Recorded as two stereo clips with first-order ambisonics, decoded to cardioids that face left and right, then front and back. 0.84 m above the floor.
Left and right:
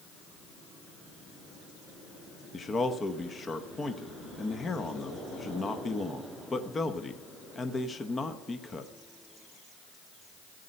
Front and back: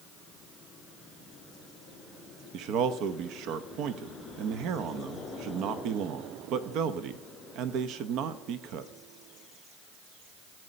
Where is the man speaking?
160° left, 0.6 m.